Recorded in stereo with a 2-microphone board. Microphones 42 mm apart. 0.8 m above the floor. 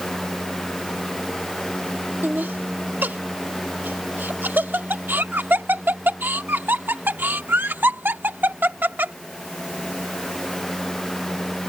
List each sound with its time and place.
2.2 s laughter: 55° right (ahead or behind)